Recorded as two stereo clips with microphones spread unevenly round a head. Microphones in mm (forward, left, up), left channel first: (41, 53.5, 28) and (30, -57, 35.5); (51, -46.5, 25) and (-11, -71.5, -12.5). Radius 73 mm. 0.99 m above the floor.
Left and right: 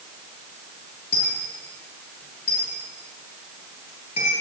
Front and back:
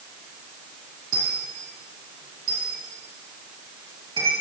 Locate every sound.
1.1 s a dropped coin: 135° left, 5.5 m